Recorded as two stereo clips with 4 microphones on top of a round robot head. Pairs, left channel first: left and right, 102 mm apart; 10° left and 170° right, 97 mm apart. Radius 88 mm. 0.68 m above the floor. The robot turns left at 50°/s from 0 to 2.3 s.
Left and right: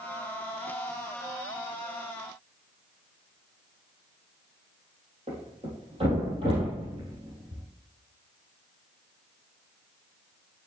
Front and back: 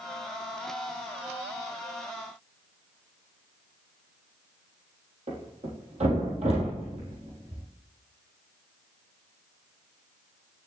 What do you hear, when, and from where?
5.3 s a thud: 140° right, 3.5 m